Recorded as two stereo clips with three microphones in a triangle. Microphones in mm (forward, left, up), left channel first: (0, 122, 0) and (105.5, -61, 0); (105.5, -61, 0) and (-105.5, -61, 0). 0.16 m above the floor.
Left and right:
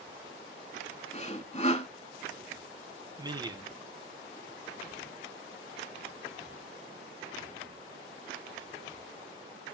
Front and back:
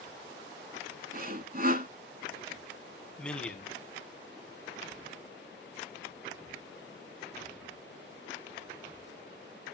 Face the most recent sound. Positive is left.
turn(degrees=-75)